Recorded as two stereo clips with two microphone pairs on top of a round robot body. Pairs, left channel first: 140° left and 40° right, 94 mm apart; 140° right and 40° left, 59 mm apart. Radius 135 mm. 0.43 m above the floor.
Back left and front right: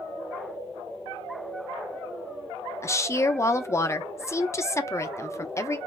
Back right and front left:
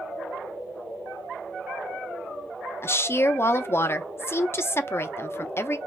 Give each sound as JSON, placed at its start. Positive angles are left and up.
{"t": 2.8, "sound": "a woman speaking", "azimuth_deg": -170, "distance_m": 0.9}